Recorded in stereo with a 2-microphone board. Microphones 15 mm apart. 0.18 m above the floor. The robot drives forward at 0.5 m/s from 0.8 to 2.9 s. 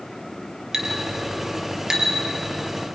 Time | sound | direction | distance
0.7 | a clink | 35° right (ahead or behind) | 3.5 m